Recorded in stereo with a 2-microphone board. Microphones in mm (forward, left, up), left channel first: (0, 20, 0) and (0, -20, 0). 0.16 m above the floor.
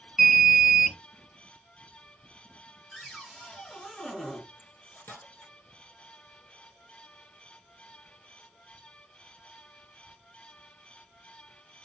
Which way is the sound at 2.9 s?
10° left (ahead or behind).